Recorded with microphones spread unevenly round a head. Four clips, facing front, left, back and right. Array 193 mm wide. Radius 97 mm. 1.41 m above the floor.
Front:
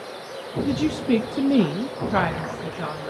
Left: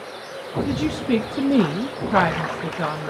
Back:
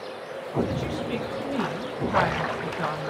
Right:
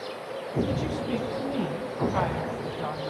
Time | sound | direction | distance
0.7 | a woman speaking | 25° left | 1.7 m